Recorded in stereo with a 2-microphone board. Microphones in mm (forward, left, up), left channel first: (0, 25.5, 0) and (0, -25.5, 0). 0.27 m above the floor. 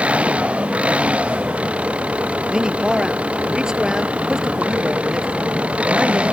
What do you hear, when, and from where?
0.0 s an engine running: 25° right (ahead or behind)
2.5 s a man speaking: 15° right (ahead or behind)